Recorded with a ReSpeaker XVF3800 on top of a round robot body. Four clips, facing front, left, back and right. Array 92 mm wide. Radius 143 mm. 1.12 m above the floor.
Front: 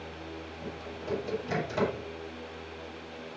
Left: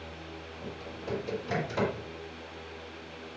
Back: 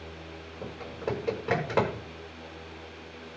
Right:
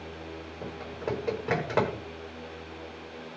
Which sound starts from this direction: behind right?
Typing on a keyboard, at 0.6 s.